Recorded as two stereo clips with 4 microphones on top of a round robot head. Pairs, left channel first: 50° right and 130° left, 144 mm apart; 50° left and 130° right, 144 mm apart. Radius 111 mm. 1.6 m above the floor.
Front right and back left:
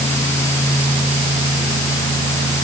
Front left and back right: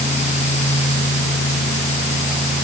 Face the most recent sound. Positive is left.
No sound to turn to.